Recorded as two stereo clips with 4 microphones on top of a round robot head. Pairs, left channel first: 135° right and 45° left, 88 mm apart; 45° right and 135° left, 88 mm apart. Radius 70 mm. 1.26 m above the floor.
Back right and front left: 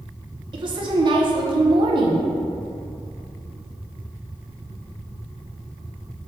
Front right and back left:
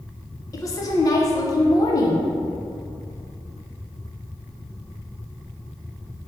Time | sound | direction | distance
0.5 | a woman speaking | 10° left | 0.7 m